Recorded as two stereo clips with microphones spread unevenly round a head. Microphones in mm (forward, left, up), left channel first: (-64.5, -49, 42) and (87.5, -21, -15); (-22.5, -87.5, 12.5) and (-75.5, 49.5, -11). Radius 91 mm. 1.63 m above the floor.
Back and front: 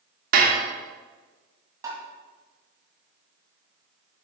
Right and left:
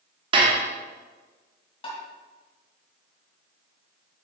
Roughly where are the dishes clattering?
Ahead left.